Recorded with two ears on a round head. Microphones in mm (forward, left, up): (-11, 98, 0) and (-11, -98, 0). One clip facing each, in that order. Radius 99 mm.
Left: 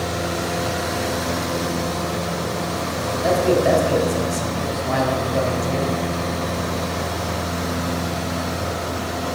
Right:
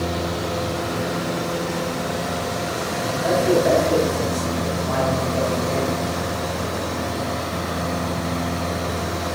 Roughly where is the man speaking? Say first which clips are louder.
Left 1 dB; left.